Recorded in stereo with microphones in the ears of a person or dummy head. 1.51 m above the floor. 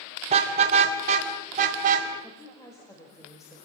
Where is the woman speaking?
15° left (ahead or behind), 5.5 m.